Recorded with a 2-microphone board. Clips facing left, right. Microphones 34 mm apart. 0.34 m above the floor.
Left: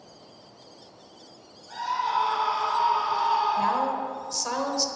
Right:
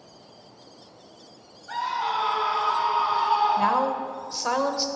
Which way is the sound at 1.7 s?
45° right (ahead or behind).